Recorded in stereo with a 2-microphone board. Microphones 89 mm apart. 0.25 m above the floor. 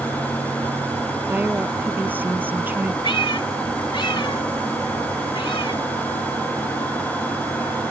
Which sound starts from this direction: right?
A woman speaking, at 1.3 s.